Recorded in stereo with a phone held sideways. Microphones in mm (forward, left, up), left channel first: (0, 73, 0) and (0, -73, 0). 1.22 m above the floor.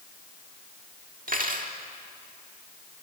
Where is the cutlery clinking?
65° right (ahead or behind), 1.7 m.